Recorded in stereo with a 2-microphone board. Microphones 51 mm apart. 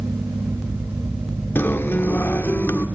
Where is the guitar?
45° left (ahead or behind), 0.8 m.